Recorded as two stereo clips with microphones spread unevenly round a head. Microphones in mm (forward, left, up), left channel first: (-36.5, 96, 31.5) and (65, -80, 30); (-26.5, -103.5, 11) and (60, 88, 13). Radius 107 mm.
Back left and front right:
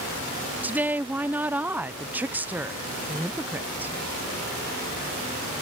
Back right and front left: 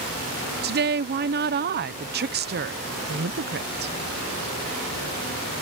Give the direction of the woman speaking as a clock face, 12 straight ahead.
11 o'clock.